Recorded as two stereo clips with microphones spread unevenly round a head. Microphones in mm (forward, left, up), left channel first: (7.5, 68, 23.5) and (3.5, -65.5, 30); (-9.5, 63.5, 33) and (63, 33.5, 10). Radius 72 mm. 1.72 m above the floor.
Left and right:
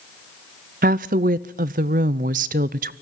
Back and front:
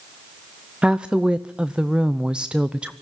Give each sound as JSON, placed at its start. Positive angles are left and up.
{"t": 0.8, "sound": "a woman speaking", "azimuth_deg": -115, "distance_m": 0.5}